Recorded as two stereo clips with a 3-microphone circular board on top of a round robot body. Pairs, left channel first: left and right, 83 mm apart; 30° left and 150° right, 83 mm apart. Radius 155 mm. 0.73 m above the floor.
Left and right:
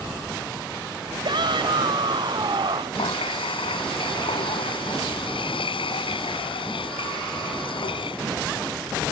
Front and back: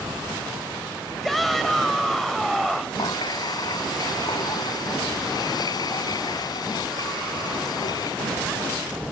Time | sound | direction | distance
1.2 | a shout | 60° right | ?
3.0 | a running tap | 70° left | ?